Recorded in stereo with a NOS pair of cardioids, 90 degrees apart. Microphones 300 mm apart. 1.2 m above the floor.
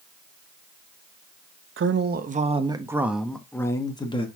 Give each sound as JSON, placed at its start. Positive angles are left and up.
{"t": 1.8, "sound": "a man speaking", "azimuth_deg": -40, "distance_m": 1.0}